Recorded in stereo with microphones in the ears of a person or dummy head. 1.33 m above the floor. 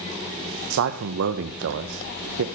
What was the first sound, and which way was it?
A man speaking, 65° right (ahead or behind).